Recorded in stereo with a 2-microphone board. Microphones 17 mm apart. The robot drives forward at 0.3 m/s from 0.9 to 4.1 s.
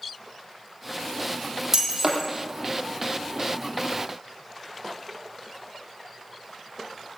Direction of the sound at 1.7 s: 15° right (ahead or behind).